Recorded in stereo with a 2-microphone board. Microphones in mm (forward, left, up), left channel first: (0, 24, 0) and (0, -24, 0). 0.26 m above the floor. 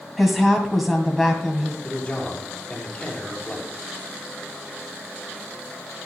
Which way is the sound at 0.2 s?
Centre (ahead or behind).